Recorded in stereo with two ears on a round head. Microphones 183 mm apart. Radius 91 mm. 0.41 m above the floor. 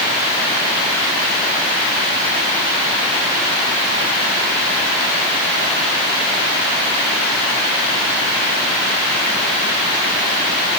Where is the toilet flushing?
I don't hear a toilet flushing.